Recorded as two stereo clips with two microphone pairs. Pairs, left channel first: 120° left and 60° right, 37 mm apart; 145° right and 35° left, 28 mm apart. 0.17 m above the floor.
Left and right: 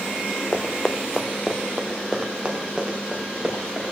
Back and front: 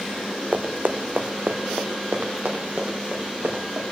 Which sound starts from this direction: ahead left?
Running footsteps, at 0.5 s.